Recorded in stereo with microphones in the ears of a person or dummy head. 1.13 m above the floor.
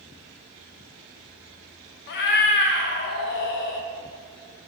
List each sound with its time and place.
2.1 s a cat meowing: 60° left (ahead or behind), 0.7 m